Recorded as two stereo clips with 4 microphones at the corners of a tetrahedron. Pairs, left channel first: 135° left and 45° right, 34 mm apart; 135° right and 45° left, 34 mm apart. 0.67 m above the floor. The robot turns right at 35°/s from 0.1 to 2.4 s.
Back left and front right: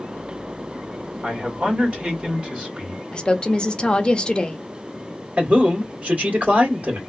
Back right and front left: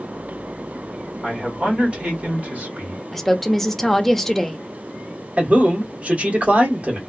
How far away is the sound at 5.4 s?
About 1.7 m.